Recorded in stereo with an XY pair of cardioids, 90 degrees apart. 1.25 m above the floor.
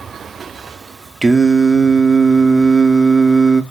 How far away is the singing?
About 0.5 m.